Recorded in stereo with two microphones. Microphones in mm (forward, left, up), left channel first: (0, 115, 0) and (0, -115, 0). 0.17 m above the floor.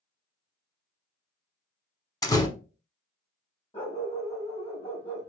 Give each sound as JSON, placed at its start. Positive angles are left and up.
{"t": 2.2, "sound": "a door slam", "side_deg": 15, "distance_m": 0.7}
{"t": 3.7, "sound": "a dog barking", "side_deg": 25, "distance_m": 2.0}